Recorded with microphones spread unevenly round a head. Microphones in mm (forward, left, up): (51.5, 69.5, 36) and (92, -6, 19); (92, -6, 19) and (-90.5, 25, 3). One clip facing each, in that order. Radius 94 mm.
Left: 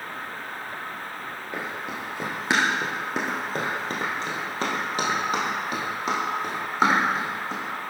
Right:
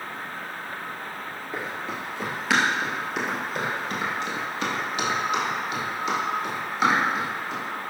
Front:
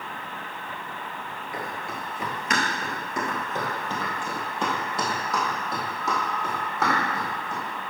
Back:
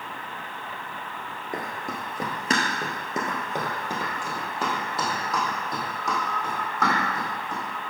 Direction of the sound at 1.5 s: Straight behind.